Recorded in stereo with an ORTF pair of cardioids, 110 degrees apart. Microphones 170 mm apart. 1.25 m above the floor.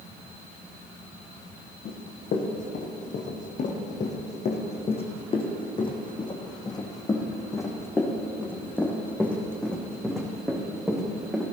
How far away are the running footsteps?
About 4 m.